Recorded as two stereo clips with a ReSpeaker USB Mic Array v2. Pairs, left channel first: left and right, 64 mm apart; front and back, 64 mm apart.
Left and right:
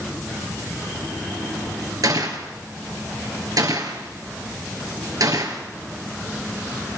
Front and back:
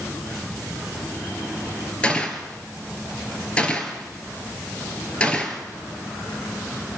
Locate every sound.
2.0 s a gunshot: 70° right, 3 m